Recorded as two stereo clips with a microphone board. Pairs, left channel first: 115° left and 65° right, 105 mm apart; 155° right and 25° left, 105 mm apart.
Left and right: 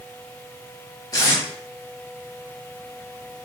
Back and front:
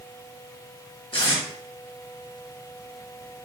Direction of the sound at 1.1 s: 170° left.